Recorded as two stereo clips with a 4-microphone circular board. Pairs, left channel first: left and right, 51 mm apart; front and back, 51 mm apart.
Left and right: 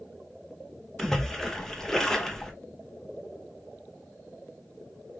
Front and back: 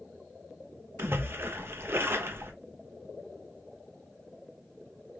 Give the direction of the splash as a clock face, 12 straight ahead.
6 o'clock.